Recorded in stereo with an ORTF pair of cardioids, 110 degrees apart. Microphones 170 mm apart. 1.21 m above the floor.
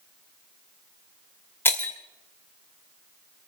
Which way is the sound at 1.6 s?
15° left.